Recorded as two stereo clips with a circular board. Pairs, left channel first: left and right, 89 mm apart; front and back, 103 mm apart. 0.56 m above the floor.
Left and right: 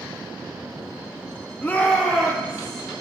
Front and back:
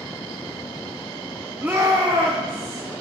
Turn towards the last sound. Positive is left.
turn(degrees=170)